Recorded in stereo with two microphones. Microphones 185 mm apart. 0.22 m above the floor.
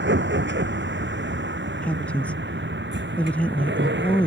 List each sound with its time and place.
0.0 s a vehicle: 85° right; by 4.3 s 80° right
1.8 s a woman speaking: 5° left (ahead or behind)